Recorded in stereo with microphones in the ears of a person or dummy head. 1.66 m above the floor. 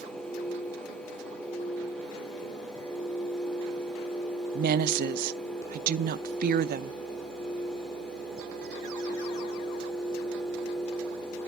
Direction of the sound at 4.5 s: 55° right (ahead or behind).